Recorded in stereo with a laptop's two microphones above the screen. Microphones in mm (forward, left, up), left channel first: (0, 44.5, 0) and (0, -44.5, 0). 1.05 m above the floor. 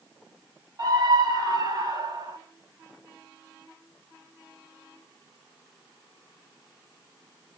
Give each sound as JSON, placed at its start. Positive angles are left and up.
{"t": 0.8, "sound": "a scream", "side_deg": -45, "distance_m": 1.8}